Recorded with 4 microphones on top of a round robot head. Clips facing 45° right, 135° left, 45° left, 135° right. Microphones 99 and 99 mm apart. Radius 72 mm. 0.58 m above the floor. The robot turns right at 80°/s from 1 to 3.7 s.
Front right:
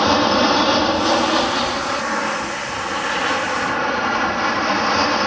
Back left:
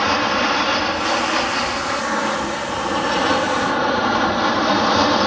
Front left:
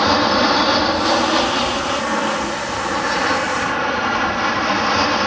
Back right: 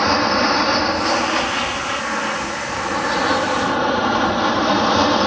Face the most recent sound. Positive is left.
turn(degrees=-175)